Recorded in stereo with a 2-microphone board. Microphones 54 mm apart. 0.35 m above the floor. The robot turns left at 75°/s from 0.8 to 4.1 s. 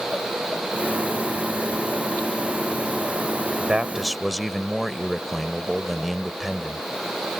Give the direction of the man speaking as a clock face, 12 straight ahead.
5 o'clock.